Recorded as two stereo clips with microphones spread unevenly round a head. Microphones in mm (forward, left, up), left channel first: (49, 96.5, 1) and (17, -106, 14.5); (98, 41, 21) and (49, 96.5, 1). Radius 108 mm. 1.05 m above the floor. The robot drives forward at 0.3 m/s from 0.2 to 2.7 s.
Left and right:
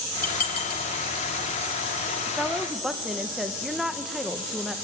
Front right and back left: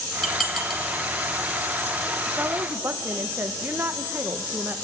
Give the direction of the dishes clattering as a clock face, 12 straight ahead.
11 o'clock.